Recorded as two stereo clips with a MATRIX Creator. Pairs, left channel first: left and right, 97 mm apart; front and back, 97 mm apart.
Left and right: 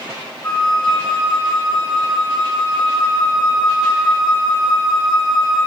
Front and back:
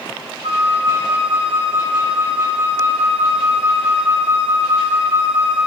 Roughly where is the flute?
Behind left.